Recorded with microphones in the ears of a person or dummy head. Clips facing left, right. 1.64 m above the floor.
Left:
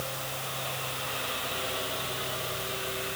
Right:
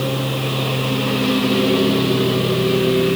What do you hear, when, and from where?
0.0 s a lawn mower: 85° right